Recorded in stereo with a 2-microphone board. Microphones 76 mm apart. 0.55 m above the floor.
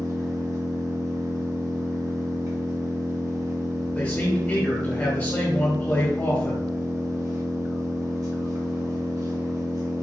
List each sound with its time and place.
0.0 s an engine running: 45° right (ahead or behind), 1.2 m
4.0 s a man speaking: 25° left (ahead or behind), 1.3 m